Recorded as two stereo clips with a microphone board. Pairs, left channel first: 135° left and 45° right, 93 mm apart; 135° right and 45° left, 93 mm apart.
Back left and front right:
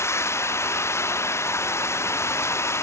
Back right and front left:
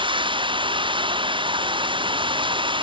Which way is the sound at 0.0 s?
75° left.